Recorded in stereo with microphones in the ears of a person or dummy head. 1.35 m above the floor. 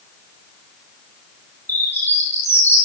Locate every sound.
1.7 s a bird: 10° left (ahead or behind), 6 m